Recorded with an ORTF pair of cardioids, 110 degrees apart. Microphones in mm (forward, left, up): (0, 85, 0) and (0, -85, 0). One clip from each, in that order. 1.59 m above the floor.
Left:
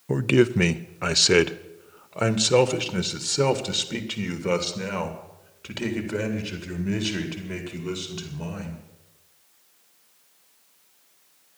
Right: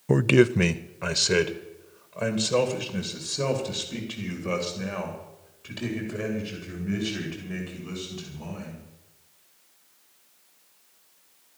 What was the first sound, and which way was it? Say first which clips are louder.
A man speaking: right 1 dB; 25° right.